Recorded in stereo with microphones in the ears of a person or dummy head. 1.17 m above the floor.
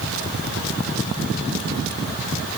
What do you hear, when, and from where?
Only background noise.